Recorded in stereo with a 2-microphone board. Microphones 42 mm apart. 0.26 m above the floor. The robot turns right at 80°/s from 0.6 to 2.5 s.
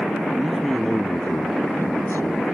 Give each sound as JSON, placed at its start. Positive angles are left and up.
{"t": 0.3, "sound": "a man speaking", "azimuth_deg": -5}